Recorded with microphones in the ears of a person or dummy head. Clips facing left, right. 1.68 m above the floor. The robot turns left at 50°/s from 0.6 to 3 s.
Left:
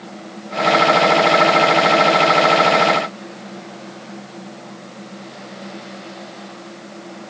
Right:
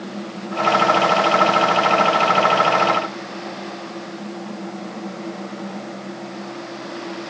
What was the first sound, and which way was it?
Only background noise.